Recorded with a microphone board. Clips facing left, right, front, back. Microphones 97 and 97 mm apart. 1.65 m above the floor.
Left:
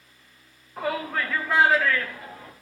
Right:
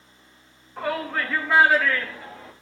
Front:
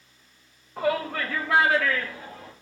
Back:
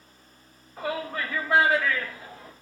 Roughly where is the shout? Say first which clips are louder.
Right 1 dB, front 5 dB; ahead.